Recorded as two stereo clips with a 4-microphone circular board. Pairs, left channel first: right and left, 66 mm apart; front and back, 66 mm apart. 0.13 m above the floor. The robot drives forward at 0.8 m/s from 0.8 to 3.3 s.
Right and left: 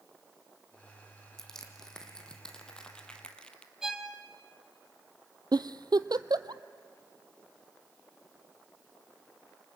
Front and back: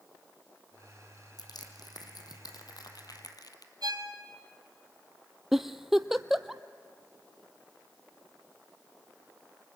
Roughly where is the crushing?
Ahead.